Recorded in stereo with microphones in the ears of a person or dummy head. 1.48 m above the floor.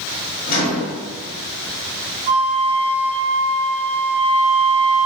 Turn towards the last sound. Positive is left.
turn(degrees=-10)  # may be behind; listen again after turning